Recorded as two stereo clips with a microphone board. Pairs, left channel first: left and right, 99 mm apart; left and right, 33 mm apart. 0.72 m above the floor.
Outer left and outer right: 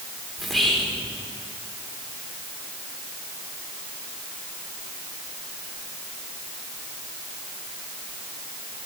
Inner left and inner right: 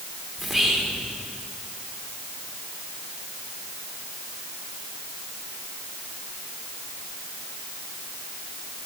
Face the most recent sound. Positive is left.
turn(degrees=0)  # may be behind; listen again after turning